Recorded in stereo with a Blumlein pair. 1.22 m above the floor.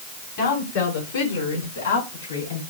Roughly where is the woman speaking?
Ahead left.